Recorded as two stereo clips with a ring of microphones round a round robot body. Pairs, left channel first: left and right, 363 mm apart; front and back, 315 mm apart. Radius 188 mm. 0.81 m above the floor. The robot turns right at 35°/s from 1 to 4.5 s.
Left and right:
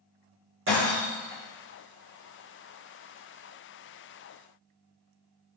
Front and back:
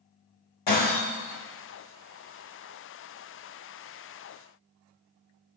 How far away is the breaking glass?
About 4.5 m.